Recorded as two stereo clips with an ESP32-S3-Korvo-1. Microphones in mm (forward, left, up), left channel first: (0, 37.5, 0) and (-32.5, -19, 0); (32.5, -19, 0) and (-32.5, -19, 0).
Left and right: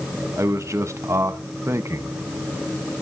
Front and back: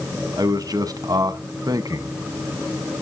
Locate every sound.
0.4 s a man speaking: 165° right, 1.0 m